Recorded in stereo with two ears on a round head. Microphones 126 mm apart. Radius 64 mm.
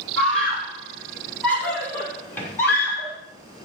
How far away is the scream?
About 7.5 m.